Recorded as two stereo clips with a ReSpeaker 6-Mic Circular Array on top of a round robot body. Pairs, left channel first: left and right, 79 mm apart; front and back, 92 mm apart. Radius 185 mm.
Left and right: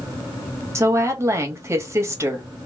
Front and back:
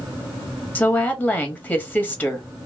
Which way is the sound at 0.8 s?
60° right.